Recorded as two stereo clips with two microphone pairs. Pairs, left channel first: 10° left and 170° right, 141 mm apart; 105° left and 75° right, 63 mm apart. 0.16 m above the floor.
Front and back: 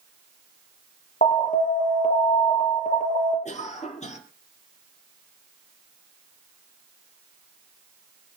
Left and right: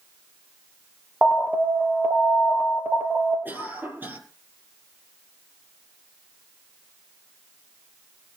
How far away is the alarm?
About 3.5 m.